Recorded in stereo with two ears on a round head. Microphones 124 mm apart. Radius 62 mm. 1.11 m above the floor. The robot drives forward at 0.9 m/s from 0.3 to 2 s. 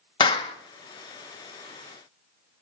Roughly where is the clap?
Left.